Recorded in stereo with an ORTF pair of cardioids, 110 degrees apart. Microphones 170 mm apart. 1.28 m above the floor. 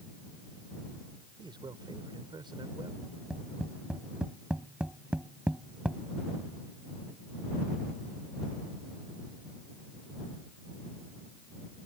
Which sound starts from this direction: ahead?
Tapping, at 3.0 s.